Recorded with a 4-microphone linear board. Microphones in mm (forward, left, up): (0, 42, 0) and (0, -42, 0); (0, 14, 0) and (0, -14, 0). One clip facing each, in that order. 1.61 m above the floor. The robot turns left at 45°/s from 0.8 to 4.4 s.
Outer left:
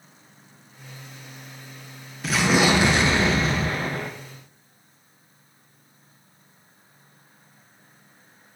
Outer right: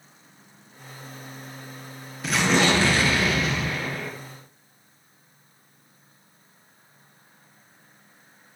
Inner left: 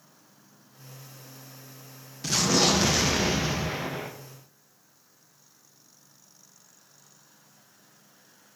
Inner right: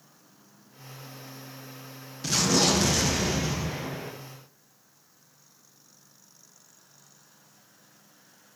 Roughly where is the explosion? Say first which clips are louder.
Outer left 1 dB, even; behind.